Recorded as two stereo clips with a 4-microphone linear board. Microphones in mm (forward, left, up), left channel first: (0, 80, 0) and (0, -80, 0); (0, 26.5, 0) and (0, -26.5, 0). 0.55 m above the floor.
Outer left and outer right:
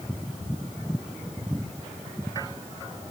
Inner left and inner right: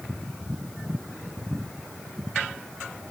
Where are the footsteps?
No footsteps in this recording.